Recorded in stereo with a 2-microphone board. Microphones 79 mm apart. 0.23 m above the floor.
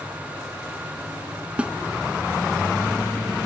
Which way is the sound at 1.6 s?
15° right (ahead or behind).